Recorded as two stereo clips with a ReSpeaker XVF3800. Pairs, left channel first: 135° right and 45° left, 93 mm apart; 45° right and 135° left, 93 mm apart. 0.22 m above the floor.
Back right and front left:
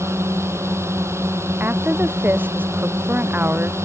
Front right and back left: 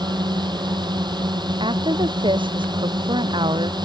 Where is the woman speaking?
115° left.